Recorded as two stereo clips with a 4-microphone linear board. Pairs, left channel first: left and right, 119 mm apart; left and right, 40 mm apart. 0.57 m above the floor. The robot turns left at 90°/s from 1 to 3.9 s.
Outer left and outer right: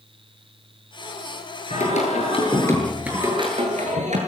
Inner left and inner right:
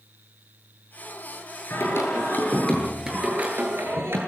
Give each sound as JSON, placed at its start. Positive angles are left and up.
{"t": 1.7, "sound": "singing", "azimuth_deg": 110, "distance_m": 9.5}